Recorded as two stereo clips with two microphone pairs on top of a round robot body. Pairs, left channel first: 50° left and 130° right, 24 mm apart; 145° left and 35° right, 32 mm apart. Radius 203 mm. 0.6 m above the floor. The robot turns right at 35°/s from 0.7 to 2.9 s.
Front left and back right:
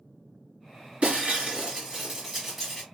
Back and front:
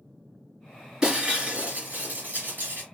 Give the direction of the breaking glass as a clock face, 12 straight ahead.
3 o'clock.